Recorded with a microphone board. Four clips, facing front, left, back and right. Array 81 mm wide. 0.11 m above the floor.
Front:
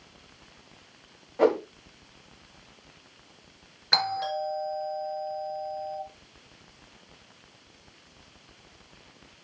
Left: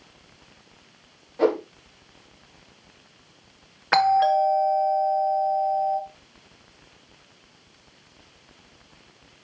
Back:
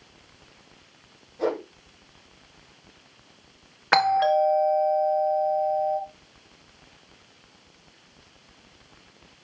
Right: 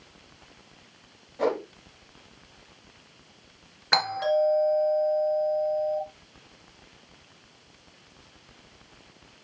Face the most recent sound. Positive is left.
turn(degrees=160)